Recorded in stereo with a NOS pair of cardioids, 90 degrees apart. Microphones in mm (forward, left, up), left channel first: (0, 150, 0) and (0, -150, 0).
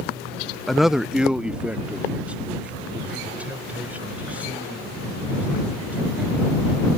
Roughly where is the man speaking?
Ahead.